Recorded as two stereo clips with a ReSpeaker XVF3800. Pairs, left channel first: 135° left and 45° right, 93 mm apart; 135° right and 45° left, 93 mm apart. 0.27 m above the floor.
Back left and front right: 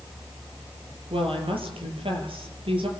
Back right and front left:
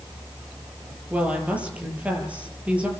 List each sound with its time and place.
1.1 s a woman speaking: 30° right, 6.5 m